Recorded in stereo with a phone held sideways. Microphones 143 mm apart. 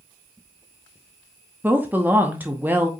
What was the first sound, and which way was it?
A woman speaking, 15° right (ahead or behind).